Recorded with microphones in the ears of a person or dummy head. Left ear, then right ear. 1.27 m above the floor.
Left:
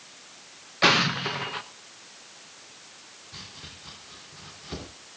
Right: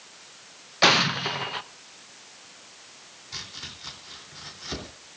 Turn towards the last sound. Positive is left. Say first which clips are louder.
# right 6 dB
turn(degrees=-70)  # may be behind; listen again after turning